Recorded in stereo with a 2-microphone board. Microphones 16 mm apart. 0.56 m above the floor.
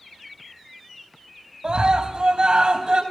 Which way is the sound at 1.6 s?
50° right (ahead or behind).